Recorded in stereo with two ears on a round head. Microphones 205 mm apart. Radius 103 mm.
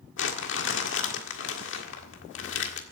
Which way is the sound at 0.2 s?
55° left (ahead or behind).